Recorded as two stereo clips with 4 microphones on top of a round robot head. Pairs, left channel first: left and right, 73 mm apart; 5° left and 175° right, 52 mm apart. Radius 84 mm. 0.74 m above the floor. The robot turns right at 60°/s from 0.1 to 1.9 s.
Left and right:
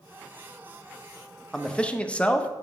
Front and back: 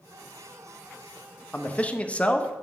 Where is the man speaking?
10° left, 0.8 m; by 2.5 s 35° left, 0.8 m.